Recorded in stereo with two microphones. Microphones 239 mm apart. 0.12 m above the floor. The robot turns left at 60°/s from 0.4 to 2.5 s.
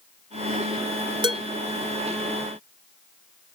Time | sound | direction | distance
1.2 | dishes clattering | 20° right (ahead or behind) | 1.3 m